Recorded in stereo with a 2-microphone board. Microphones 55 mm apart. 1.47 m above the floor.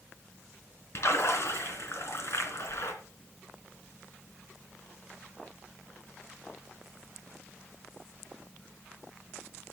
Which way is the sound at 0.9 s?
60° left (ahead or behind).